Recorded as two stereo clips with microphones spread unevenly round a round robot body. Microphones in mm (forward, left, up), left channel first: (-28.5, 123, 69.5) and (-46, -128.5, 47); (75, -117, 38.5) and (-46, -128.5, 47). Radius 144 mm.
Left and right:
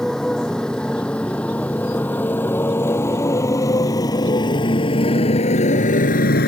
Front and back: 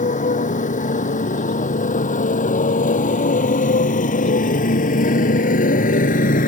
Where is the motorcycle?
Straight ahead; by 6.5 s 30° left.